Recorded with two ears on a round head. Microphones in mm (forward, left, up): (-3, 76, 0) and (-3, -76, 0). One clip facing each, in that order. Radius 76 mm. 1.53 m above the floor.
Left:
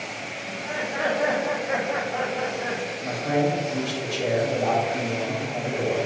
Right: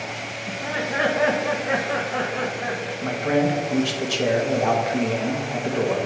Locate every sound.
0.5 s laughter: 75° right (ahead or behind), 1.3 m; by 2.9 s 70° right (ahead or behind), 2.5 m
3.0 s a man speaking: 80° right, 1.8 m